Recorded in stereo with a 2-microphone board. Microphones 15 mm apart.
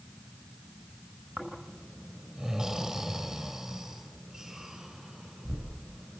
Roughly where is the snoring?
Right.